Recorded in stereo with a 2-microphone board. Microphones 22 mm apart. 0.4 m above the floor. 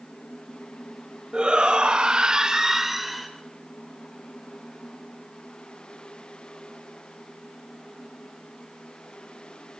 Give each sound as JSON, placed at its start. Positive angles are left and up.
{"t": 1.3, "sound": "a shout", "side_deg": -45, "distance_m": 1.4}